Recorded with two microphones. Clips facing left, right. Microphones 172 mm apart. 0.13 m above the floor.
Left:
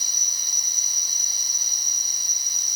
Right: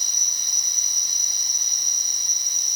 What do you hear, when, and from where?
0.0 s an insect: 10° left (ahead or behind)